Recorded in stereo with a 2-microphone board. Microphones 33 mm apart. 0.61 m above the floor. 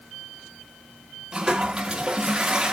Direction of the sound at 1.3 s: 25° right (ahead or behind).